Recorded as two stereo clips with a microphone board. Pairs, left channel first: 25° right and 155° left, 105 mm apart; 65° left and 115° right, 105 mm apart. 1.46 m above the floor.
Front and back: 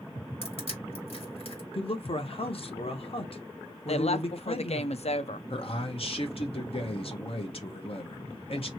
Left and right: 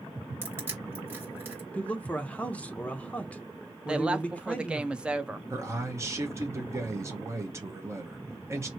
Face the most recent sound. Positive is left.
turn(degrees=-50)